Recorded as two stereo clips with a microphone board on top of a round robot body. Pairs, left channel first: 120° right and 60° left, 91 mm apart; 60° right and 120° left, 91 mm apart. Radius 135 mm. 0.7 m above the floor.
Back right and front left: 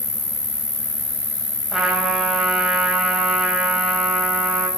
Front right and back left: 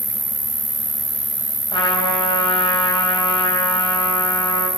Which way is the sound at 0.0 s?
165° right.